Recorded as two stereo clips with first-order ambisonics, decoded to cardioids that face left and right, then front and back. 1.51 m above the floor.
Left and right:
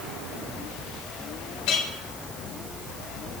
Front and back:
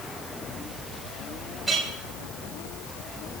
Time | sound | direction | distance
1.7 | a clink | 95° left | 3.5 m